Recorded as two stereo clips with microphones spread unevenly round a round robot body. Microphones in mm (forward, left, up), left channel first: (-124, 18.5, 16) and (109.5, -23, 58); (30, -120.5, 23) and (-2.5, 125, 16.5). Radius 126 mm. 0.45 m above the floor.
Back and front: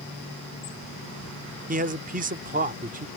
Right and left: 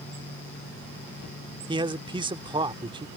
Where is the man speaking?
40° left.